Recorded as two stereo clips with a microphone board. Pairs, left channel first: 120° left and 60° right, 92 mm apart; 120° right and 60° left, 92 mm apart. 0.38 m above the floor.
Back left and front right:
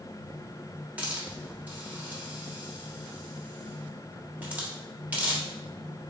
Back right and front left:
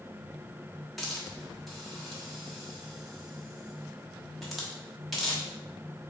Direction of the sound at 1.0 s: 30° right.